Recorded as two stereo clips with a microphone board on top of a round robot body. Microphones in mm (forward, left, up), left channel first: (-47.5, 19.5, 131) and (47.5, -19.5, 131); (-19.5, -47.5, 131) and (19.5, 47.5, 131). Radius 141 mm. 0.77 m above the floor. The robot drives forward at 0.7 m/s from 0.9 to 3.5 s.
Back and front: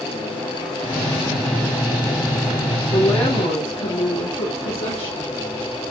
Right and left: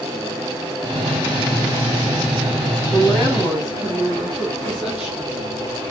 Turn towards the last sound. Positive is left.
turn(degrees=160)